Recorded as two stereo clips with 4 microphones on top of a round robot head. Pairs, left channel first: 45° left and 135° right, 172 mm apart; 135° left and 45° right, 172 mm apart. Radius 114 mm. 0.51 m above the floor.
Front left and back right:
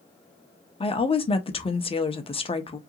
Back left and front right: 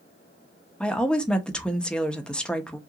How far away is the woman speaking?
About 0.7 m.